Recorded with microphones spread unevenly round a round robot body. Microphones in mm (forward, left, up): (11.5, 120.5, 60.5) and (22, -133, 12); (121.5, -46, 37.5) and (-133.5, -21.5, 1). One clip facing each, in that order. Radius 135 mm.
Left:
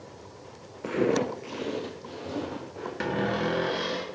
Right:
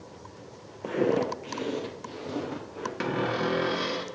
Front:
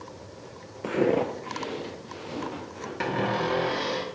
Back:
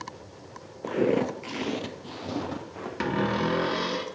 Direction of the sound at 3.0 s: 150° right.